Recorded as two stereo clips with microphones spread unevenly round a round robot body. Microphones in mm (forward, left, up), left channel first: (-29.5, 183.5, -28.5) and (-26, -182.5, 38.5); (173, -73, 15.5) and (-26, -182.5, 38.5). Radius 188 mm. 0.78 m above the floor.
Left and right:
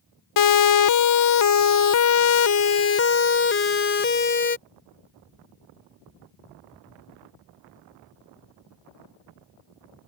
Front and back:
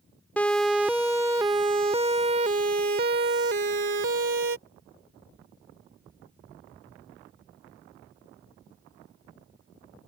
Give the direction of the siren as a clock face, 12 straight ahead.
8 o'clock.